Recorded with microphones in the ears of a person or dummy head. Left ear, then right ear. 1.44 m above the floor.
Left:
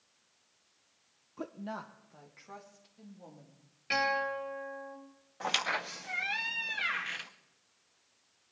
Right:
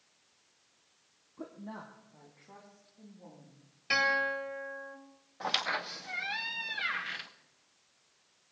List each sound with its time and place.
1.4 s a woman speaking: 85° left, 0.6 m; by 3.6 s 55° left (ahead or behind), 4 m
3.9 s a guitar: 15° right (ahead or behind), 3 m
5.4 s a squeak: 15° left (ahead or behind), 0.6 m